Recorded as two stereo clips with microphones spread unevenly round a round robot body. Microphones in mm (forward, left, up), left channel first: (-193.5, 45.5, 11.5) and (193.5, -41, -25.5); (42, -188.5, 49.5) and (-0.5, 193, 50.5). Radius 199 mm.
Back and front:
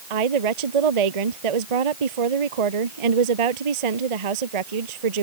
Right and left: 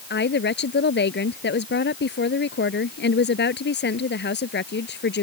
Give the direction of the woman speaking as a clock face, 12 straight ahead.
1 o'clock.